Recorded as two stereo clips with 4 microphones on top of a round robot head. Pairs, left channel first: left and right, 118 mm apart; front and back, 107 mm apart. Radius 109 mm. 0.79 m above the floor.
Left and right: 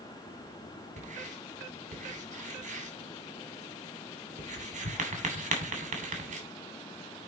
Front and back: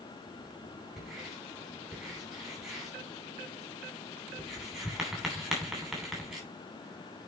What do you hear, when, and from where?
1.0 s writing: 90° right, 3 m